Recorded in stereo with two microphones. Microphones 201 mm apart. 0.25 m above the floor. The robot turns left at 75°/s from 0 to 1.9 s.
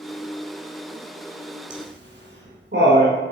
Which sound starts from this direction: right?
Laughter, at 1.7 s.